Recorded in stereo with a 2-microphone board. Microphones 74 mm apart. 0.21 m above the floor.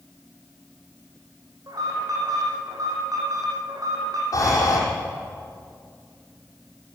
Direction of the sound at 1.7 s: 60° right (ahead or behind).